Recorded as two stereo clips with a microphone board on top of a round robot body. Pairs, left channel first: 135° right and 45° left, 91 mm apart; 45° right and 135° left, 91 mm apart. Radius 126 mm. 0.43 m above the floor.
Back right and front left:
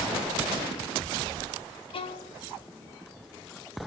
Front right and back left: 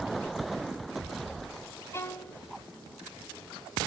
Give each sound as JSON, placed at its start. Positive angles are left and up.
{"t": 1.9, "sound": "a violin", "azimuth_deg": -110, "distance_m": 0.6}